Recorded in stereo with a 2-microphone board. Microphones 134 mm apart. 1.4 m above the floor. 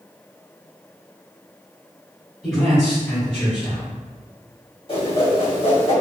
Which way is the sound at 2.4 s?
5° left (ahead or behind).